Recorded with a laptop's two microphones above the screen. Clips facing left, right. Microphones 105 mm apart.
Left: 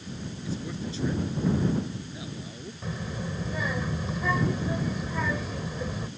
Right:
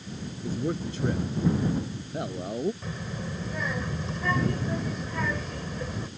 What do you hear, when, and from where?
0.4 s a man speaking: 50° right (ahead or behind); by 2.7 s 55° right (ahead or behind)
2.8 s a child speaking: 5° left (ahead or behind)